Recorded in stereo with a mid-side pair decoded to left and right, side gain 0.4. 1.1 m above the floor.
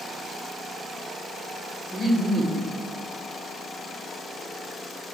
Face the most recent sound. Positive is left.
turn(degrees=-65)